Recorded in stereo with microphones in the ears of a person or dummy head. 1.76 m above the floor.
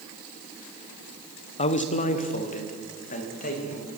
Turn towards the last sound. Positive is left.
turn(degrees=45)  # may be behind; listen again after turning